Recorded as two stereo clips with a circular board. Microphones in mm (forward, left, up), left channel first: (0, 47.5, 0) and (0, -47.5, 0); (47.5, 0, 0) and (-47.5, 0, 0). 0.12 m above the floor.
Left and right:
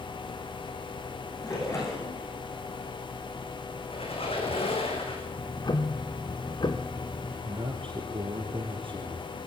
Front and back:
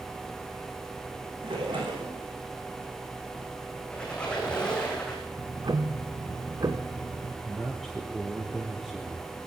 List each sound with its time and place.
1.4 s a splash: 145° left, 8.5 m
3.9 s a squeak: 80° left, 5.5 m
5.4 s ticking: 130° left, 2 m
7.5 s a man speaking: 90° right, 3 m